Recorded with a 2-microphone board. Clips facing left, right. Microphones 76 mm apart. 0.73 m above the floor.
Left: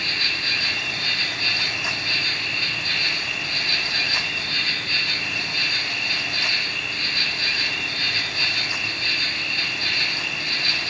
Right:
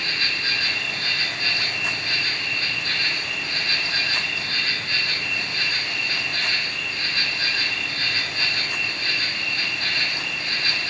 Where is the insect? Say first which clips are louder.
Right 1 dB; 40° right (ahead or behind), 4 m.